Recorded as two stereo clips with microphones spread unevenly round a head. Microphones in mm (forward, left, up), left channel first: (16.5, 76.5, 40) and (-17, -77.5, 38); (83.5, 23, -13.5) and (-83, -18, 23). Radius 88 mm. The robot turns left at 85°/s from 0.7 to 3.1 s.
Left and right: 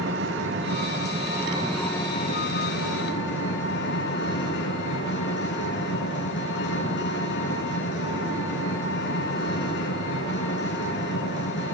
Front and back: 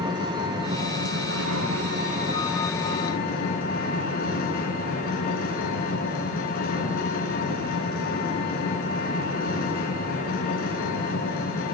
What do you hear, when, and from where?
0.0 s an engine running: 100° right, 9.5 m; by 11.8 s 55° left, 9.5 m